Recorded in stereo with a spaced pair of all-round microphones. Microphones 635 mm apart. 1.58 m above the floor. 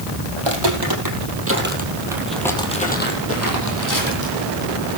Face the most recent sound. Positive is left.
turn(degrees=35)  # may be behind; listen again after turning